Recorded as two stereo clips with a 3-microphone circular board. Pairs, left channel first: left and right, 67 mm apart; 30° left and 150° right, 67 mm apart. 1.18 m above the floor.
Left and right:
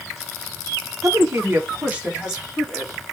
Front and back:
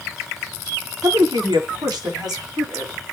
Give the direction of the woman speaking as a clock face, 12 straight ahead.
4 o'clock.